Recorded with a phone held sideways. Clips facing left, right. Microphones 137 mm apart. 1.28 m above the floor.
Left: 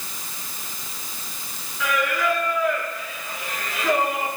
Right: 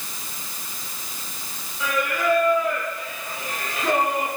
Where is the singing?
30° right (ahead or behind), 3.5 m.